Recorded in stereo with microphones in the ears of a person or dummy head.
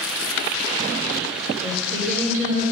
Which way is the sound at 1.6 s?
45° right (ahead or behind).